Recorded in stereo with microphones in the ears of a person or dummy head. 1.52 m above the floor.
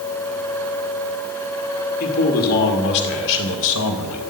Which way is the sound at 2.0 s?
45° left (ahead or behind).